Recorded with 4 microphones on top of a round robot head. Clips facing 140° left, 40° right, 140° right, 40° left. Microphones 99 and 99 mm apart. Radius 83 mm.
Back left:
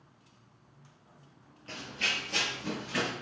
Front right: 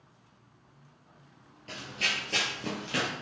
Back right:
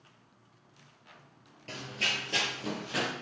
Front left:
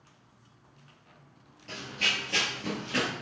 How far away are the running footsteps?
About 0.9 m.